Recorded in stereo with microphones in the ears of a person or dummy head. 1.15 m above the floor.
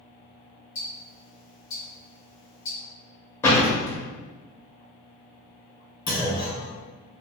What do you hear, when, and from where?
0.8 s ticking: 70° left (ahead or behind), 1.1 m
3.4 s a door slam: 20° left (ahead or behind), 0.6 m
6.1 s a clunk: 20° left (ahead or behind), 1.6 m